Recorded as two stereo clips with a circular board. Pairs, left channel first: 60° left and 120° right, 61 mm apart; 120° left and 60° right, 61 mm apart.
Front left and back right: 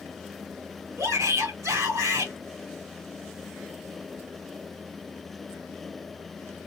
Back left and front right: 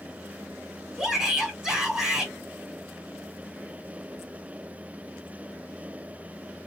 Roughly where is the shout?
Behind right.